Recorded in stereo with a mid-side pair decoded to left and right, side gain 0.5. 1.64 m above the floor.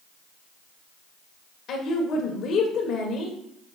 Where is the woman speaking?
65° left, 1.5 m.